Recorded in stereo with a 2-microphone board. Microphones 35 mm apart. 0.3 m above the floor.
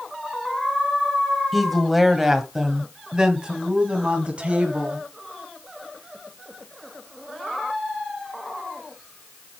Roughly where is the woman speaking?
Centre.